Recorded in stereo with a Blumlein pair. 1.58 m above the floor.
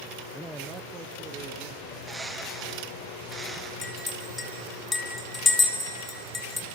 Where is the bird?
10° right, 0.9 m.